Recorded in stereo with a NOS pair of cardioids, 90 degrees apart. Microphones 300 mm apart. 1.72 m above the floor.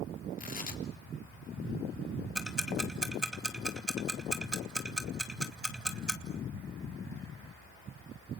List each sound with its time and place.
0.4 s tearing paper: 30° left, 3 m
2.4 s ticking: straight ahead, 2.5 m